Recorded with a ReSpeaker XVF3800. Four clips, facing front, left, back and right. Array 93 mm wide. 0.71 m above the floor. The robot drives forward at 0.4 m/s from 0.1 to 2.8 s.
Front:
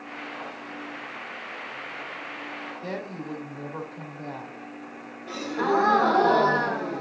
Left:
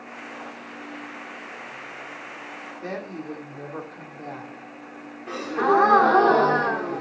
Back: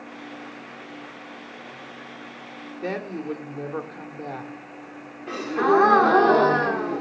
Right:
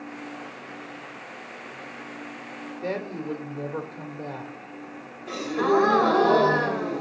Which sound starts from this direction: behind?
A woman speaking, at 2.8 s.